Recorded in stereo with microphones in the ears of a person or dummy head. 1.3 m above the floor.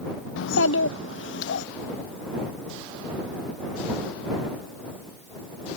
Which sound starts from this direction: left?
A child speaking, at 0.4 s.